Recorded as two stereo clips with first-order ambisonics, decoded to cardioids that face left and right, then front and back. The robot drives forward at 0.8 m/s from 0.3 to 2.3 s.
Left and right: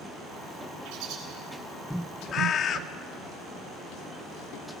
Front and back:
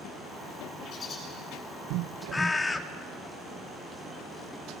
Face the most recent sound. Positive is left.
turn(degrees=70)